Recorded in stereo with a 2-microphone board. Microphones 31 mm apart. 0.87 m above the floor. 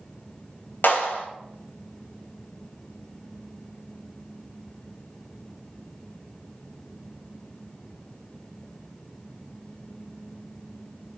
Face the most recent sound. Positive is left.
turn(degrees=75)  # may be behind; listen again after turning